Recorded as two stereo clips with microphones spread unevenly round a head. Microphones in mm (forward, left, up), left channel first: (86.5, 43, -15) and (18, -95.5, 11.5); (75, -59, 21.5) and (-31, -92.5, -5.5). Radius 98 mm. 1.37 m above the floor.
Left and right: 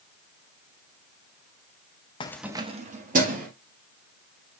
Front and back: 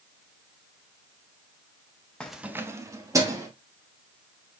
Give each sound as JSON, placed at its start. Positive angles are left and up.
{"t": 2.2, "sound": "keys jangling", "azimuth_deg": 40, "distance_m": 0.6}